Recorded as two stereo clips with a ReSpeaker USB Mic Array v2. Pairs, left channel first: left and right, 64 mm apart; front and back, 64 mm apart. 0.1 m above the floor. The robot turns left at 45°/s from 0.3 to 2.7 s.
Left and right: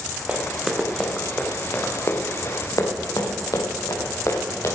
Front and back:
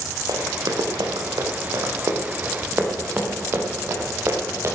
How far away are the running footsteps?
About 2.5 m.